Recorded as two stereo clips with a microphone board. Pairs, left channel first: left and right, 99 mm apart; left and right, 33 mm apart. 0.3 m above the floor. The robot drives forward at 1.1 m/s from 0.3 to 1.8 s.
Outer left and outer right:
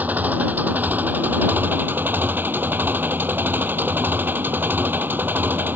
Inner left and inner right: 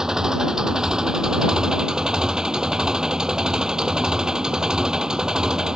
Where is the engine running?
15° right (ahead or behind); by 5.8 s 20° right (ahead or behind).